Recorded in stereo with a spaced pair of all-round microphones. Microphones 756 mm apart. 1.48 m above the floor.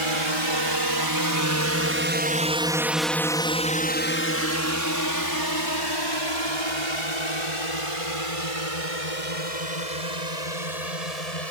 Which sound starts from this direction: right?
A drone, at 0.0 s.